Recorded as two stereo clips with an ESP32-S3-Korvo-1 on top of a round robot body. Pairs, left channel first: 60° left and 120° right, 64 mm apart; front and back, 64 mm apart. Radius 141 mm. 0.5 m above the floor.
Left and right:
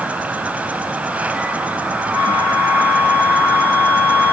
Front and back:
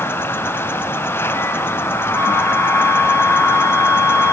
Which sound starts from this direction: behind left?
A flute, at 2.1 s.